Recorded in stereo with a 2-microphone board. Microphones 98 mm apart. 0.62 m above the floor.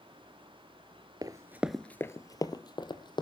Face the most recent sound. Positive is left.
turn(degrees=50)  # may be behind; listen again after turning